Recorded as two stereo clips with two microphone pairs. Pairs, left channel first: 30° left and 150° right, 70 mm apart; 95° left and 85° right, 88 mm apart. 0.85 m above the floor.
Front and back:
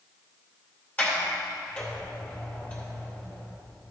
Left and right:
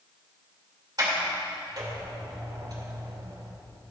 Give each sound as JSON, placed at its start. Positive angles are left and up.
{"t": 1.0, "sound": "a sliding door", "azimuth_deg": -40, "distance_m": 2.0}